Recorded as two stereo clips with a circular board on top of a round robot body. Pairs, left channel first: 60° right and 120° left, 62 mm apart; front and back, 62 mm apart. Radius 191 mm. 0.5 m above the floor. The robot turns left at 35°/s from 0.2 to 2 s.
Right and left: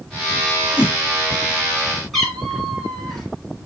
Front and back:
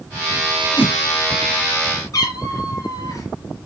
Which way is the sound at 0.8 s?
110° right.